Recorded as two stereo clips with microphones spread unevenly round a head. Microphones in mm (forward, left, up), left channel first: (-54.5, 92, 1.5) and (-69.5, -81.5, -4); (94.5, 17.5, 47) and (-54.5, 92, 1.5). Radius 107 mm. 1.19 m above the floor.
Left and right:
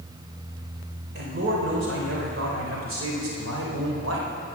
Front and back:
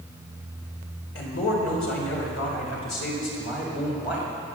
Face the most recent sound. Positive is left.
turn(degrees=-70)